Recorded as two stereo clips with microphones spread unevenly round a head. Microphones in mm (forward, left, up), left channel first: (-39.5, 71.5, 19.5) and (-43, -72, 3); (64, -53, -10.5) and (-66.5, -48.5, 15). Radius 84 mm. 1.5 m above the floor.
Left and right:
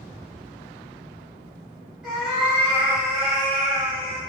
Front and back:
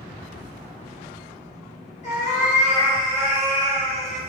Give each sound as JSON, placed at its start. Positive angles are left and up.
{"t": 2.0, "sound": "a cat meowing", "azimuth_deg": 0, "distance_m": 1.6}